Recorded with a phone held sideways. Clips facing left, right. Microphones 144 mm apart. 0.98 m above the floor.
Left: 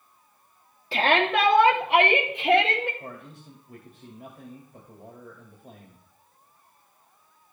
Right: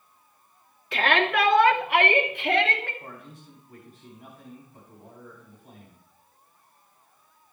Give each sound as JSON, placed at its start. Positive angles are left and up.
{"t": 0.9, "sound": "a shout", "side_deg": 30, "distance_m": 2.0}
{"t": 3.0, "sound": "a man speaking", "side_deg": 60, "distance_m": 2.5}